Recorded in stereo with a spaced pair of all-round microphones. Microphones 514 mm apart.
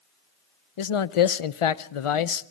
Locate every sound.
0.8 s a man speaking: 75° left (ahead or behind), 0.6 m